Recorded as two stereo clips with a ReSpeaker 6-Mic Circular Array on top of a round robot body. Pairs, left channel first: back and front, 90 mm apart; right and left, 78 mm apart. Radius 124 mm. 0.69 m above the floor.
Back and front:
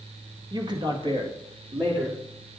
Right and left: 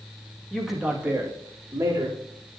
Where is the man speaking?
5° right, 1.6 m; by 2.2 s 35° left, 3 m.